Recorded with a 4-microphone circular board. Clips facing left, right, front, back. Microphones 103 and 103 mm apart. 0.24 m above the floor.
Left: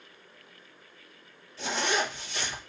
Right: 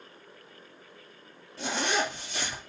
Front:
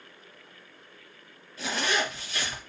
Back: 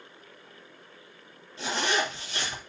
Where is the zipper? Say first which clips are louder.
Even, back 1 dB; 120° right, 3.5 m.